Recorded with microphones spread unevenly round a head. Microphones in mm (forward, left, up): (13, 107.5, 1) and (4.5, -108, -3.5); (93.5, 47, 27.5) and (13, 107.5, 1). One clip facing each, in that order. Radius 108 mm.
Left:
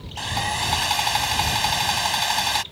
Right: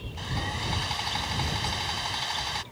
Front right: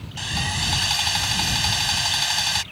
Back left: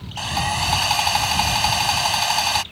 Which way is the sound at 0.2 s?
105° left.